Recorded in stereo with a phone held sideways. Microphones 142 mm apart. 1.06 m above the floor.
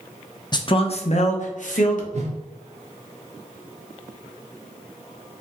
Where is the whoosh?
55° right (ahead or behind), 0.7 m.